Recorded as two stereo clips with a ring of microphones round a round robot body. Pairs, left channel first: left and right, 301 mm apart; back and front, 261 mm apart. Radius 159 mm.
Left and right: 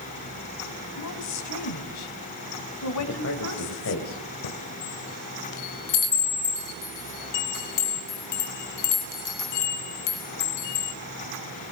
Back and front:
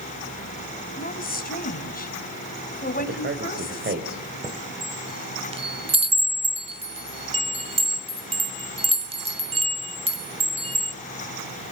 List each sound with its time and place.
1.0 s a woman speaking: 125° left, 3.5 m
3.0 s a man speaking: 50° left, 3 m
4.4 s a chime: 70° left, 2.5 m